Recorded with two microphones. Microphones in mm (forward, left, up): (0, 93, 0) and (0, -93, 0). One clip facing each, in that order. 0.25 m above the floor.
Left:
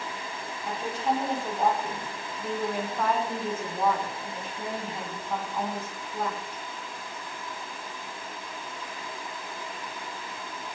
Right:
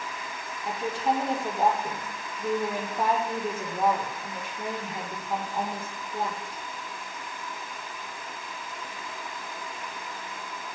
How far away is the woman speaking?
About 7 m.